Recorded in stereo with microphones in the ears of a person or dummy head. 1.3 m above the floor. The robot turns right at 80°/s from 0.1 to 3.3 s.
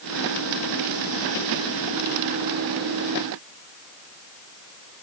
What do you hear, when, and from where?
Only background noise.